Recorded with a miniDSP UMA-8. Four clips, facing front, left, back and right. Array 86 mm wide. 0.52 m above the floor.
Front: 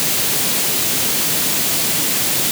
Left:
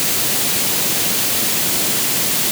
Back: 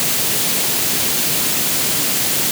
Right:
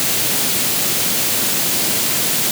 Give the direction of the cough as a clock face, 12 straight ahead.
I don't hear a cough.